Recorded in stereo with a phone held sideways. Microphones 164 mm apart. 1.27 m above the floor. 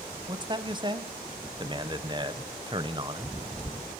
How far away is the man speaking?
About 0.6 m.